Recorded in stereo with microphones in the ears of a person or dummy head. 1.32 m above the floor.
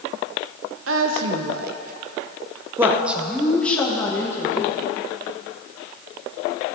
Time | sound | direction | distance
0.9 | a woman speaking | 80° right | 1.0 m